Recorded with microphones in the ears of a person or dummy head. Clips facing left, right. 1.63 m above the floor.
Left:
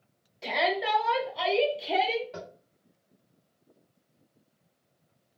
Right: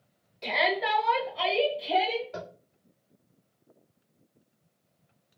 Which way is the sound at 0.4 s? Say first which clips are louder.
Even; centre (ahead or behind).